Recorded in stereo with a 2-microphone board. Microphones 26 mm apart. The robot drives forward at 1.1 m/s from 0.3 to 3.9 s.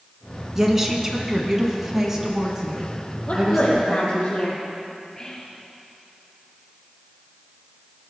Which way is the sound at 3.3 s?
50° left (ahead or behind).